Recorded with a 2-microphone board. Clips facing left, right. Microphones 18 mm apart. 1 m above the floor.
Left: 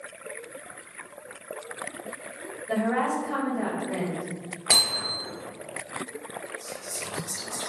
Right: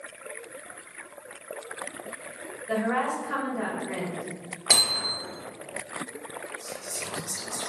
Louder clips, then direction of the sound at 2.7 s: Left 1 dB; 50° right (ahead or behind).